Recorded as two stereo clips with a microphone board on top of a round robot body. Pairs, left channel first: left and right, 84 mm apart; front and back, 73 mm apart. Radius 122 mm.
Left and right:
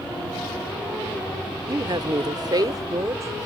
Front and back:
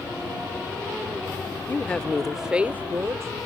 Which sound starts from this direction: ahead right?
A woman speaking, at 1.7 s.